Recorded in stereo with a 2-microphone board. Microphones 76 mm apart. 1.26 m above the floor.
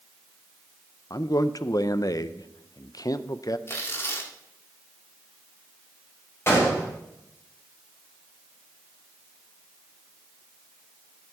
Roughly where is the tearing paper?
Left.